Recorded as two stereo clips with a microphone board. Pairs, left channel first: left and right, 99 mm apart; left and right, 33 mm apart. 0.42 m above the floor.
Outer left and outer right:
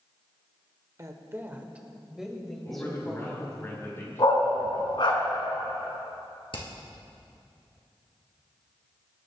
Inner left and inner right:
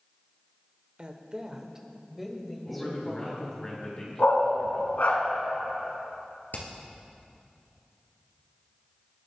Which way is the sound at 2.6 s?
25° left (ahead or behind).